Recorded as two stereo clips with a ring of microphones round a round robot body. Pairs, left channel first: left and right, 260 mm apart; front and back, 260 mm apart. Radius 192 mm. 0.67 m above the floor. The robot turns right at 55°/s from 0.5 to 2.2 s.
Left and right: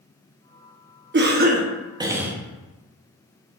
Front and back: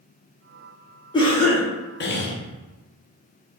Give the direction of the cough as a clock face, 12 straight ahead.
2 o'clock.